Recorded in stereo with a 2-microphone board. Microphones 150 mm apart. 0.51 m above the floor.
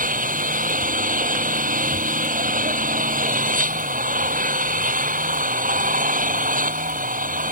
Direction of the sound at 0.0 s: 65° right (ahead or behind).